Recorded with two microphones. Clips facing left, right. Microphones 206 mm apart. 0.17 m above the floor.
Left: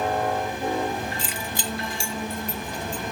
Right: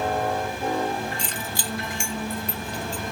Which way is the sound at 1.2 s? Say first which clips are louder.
Left 1 dB; centre (ahead or behind).